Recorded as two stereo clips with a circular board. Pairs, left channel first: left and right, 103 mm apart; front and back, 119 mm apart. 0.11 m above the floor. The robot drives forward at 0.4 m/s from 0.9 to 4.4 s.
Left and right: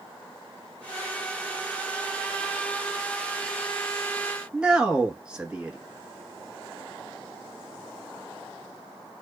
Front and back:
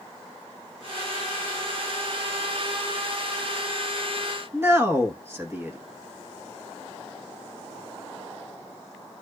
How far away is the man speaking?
About 1.2 m.